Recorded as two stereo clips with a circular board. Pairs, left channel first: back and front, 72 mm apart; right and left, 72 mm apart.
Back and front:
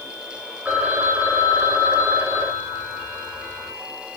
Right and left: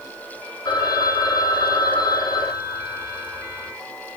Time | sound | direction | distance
0.7 | a phone ringing | 70° right | 4.5 m